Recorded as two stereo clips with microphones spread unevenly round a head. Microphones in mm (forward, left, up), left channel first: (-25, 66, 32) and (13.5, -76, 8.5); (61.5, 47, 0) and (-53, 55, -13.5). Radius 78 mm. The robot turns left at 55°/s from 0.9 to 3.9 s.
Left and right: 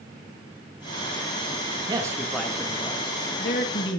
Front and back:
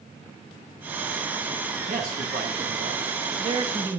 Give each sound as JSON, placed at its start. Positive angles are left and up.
{"t": 1.9, "sound": "a man speaking", "azimuth_deg": -140, "distance_m": 2.0}